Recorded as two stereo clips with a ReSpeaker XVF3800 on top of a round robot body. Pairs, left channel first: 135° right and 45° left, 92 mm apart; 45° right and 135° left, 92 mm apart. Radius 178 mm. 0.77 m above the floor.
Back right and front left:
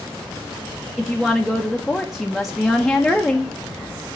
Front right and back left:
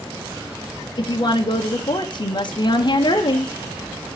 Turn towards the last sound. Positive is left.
turn(degrees=-45)